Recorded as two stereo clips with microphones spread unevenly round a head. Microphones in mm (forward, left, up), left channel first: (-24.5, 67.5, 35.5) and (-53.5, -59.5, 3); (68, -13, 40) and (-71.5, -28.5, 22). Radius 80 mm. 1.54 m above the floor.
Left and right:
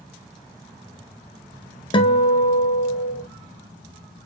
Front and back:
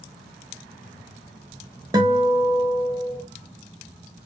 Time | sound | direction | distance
1.9 | a guitar | 115° left | 0.8 m